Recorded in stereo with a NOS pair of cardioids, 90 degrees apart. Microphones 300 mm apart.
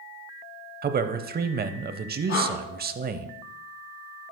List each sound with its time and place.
0.8 s a man speaking: 30° right, 0.7 m
2.3 s breathing: 45° left, 3.5 m